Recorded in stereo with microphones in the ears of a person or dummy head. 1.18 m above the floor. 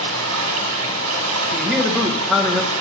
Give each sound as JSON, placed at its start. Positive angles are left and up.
{"t": 0.0, "sound": "running water", "side_deg": -85, "distance_m": 1.6}
{"t": 1.5, "sound": "a man speaking", "side_deg": -5, "distance_m": 1.1}